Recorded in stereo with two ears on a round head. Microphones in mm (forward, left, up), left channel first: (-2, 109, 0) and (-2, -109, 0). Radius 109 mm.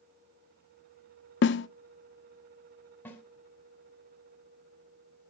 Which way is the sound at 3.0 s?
10° left (ahead or behind).